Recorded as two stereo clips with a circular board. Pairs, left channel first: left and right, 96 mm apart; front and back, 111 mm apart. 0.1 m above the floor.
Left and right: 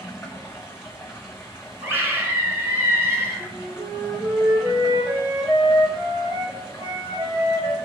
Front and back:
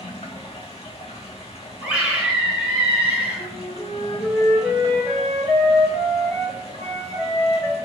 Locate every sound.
0.0 s running water: 25° left, 1.0 m
1.8 s a scream: 120° right, 1.1 m
3.4 s a flute: 70° right, 1.4 m